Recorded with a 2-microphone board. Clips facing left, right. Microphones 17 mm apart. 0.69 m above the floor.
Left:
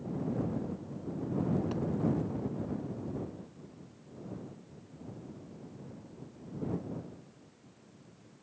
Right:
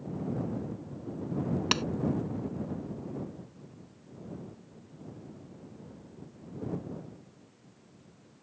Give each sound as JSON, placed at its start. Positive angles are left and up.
{"t": 1.7, "sound": "a clap", "side_deg": -80}